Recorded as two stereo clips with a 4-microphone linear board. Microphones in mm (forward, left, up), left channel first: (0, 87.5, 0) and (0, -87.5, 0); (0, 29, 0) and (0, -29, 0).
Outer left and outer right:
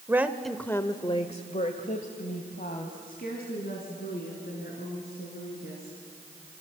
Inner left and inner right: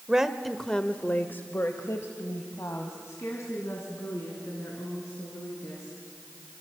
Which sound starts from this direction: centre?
A woman speaking, at 0.1 s.